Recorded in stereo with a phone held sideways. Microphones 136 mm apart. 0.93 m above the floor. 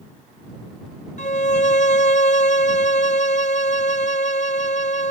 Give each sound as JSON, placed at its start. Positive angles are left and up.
{"t": 1.2, "sound": "a violin", "side_deg": 55}